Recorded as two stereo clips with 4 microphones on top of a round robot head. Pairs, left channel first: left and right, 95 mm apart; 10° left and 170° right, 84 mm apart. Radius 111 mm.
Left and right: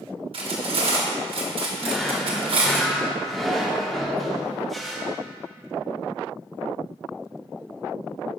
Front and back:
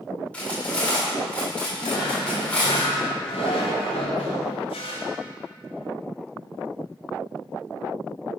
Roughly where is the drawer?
Ahead.